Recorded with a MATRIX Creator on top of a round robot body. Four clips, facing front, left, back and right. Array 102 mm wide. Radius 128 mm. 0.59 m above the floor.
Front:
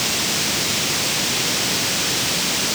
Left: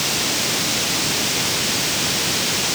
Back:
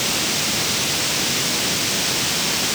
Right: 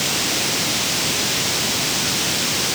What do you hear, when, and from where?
Only background noise.